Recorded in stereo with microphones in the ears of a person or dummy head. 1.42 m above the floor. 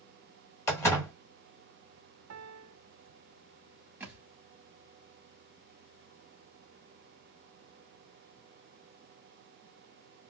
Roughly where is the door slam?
Centre.